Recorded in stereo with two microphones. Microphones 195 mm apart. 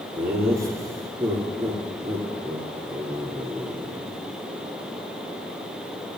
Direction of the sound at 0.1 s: 15° right (ahead or behind).